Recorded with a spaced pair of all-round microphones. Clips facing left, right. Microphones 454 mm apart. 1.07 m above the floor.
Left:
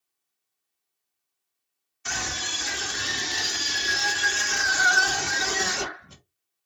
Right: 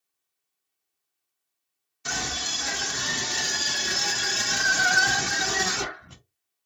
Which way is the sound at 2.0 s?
55° right (ahead or behind).